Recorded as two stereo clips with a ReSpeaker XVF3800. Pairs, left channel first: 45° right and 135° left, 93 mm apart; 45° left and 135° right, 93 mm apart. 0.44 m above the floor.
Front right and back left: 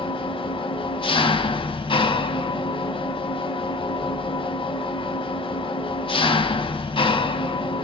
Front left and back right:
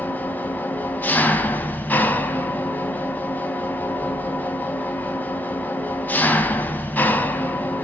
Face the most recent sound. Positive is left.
turn(degrees=-25)